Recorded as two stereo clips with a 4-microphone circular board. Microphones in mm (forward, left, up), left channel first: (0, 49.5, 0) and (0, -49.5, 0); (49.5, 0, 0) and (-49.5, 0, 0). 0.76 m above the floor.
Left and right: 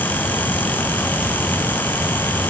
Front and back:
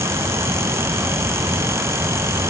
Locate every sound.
Only background noise.